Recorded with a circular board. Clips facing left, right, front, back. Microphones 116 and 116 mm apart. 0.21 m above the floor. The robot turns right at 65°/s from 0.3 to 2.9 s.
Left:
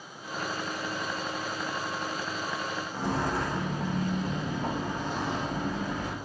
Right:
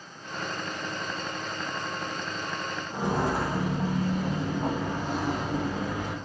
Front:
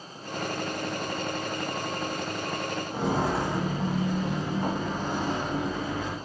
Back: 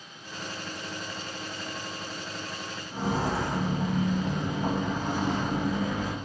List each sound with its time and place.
2.9 s footsteps: 20° right, 0.7 m; by 6.1 s 45° right, 2.5 m